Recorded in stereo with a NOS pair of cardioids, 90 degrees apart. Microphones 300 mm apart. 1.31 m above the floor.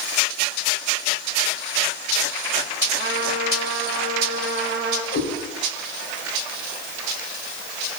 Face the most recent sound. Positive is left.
turn(degrees=65)